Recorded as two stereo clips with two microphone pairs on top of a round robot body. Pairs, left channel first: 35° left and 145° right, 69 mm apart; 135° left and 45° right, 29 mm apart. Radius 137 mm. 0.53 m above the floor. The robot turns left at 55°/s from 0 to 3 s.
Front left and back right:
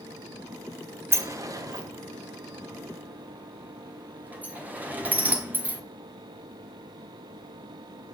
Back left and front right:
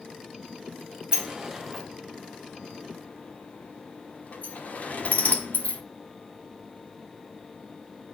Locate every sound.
1.1 s a sliding door: 100° right, 1.4 m; by 5.8 s 155° left, 1.4 m